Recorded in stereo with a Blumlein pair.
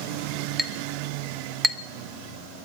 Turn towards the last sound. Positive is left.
turn(degrees=5)